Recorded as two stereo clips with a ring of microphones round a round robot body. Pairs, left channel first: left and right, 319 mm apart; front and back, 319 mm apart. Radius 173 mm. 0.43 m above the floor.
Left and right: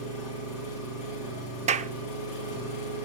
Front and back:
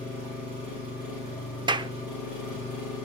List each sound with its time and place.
0.0 s an engine running: 95° left, 9.5 m
1.7 s a clap: 125° right, 0.6 m